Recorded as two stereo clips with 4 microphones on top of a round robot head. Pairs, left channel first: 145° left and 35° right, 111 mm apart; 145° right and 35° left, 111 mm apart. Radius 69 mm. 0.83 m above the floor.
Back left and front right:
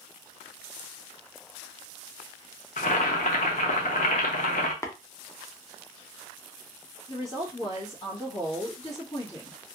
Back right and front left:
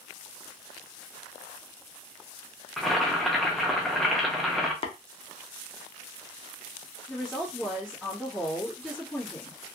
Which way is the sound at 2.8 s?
120° left.